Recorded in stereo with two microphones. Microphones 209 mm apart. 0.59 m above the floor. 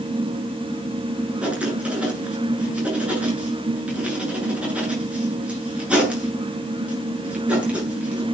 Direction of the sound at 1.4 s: 5° right (ahead or behind).